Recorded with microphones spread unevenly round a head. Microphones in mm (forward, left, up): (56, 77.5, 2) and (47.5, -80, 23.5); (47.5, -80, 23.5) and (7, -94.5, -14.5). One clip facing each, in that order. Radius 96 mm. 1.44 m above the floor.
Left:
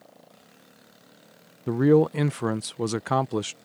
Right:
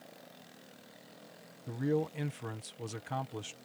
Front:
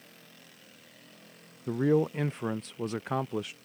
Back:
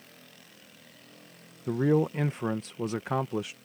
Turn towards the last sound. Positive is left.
turn(degrees=105)